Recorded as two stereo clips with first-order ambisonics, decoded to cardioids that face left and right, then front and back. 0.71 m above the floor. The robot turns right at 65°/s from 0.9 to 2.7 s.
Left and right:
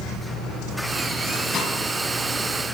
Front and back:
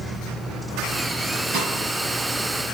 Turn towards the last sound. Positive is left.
turn(degrees=-130)